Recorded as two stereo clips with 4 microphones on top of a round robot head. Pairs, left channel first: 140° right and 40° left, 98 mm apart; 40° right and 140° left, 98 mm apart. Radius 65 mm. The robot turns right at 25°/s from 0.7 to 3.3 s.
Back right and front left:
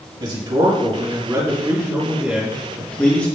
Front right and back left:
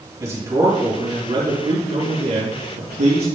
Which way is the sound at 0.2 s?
85° left.